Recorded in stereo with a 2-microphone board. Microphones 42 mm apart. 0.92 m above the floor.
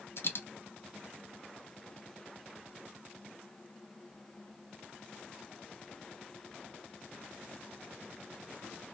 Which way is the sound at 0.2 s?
60° left (ahead or behind).